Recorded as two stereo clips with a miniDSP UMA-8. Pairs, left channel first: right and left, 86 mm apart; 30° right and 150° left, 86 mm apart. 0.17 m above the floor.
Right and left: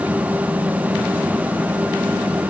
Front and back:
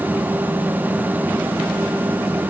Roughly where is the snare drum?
No snare drum in this recording.